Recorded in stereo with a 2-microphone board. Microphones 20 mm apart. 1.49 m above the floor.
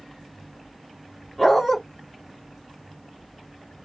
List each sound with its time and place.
1.4 s a dog barking: 5° left (ahead or behind), 1.6 m